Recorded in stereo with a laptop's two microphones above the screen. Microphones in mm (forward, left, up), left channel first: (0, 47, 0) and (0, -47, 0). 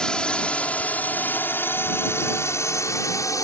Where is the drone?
10° left (ahead or behind); by 3.4 s 35° left (ahead or behind).